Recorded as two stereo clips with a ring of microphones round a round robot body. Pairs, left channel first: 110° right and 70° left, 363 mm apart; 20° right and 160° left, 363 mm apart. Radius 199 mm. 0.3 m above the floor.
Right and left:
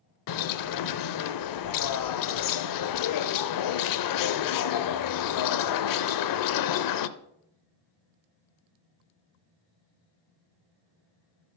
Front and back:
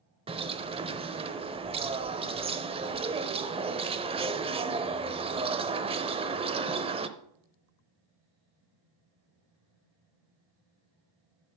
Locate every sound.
0.3 s a bird: 130° right, 0.6 m